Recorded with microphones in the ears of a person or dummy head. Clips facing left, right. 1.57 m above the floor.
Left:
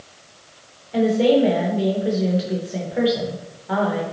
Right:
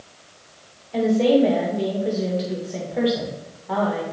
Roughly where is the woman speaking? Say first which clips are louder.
Left 1 dB; centre.